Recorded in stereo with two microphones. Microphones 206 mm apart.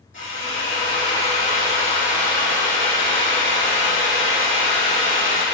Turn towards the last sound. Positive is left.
turn(degrees=70)  # may be behind; listen again after turning